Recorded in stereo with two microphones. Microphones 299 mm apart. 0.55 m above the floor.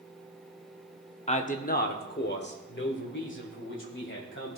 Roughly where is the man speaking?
Left.